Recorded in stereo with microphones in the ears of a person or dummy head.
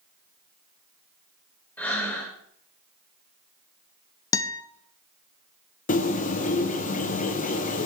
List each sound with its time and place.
1.8 s breathing: 5° left (ahead or behind), 3 m
4.3 s a guitar: 15° left (ahead or behind), 0.7 m
5.9 s a bird: 45° left (ahead or behind), 1.1 m